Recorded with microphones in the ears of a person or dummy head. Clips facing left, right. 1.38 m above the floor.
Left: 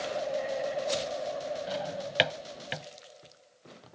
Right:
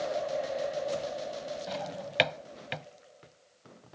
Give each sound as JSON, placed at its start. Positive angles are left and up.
{"t": 1.7, "sound": "a drawer", "side_deg": 5}